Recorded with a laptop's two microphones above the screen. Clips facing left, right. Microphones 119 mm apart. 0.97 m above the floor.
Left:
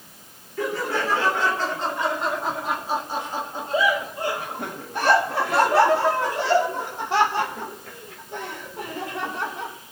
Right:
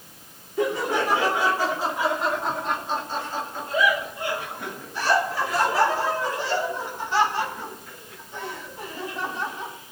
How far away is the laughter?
About 2.5 m.